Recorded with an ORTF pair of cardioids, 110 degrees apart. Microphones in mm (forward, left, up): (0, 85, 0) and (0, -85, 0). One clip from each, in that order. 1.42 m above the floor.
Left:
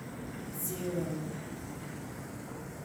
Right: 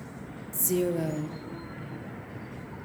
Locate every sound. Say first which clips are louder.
0.5 s a woman speaking: right 9 dB; 60° right, 0.7 m